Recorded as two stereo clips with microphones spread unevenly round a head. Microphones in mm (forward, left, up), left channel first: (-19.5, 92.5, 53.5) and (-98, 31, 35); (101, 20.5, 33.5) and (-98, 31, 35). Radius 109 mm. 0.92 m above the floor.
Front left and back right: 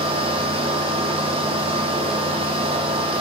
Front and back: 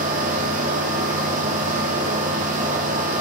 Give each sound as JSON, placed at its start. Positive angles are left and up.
{"t": 0.0, "sound": "a fan", "azimuth_deg": -130, "distance_m": 2.5}